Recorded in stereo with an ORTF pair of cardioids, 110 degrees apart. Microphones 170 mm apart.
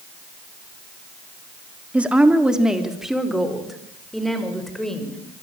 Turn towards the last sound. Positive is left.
turn(degrees=5)